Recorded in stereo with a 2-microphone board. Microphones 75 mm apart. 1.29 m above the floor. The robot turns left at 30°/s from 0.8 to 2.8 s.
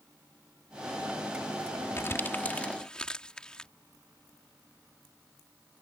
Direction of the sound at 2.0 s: 40° left (ahead or behind).